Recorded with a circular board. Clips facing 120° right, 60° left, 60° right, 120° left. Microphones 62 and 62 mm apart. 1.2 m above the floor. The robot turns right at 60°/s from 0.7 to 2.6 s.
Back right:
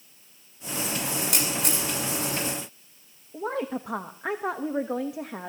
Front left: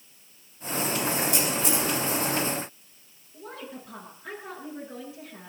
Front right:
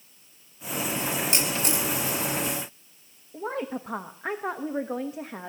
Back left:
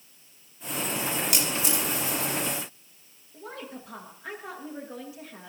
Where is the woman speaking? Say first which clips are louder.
Back right 11 dB, front right 9 dB; 110° right, 1.1 m.